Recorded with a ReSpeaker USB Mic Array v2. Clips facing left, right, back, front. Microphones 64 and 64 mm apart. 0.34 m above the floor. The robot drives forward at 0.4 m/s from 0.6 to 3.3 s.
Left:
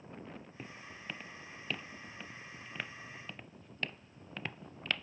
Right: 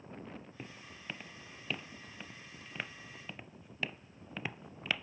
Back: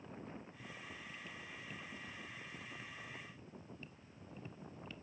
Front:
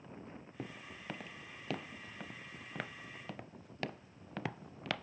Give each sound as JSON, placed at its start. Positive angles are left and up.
{"t": 0.6, "sound": "footsteps", "azimuth_deg": 0}